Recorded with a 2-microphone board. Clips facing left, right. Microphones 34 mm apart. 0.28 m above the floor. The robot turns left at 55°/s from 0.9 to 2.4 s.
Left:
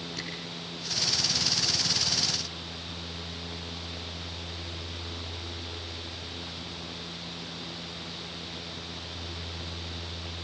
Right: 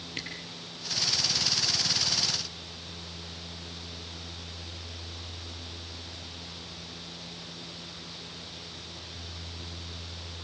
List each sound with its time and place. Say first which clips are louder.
0.2 s a camera shutter: right 3 dB; 45° right (ahead or behind), 8.5 m